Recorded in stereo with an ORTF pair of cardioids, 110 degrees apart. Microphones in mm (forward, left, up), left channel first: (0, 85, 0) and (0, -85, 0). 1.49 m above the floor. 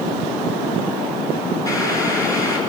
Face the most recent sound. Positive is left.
turn(degrees=20)